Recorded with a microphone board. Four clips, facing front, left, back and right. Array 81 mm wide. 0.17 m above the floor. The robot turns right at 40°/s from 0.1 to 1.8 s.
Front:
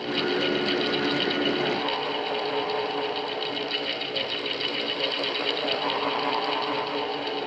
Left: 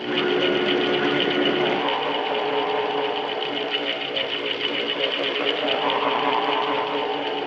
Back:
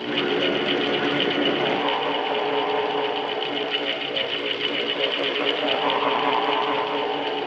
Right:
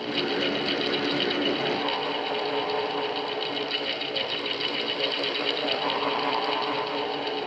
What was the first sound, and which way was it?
Only background noise.